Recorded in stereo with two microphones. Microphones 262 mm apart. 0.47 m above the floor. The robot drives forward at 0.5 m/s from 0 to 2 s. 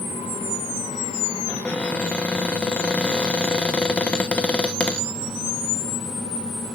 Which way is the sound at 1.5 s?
5° left (ahead or behind).